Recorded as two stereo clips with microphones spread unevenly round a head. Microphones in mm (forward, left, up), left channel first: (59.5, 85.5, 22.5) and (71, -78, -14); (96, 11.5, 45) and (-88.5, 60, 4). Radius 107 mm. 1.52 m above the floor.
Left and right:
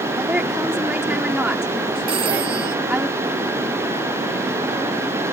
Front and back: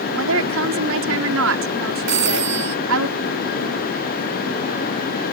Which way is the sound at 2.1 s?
155° right.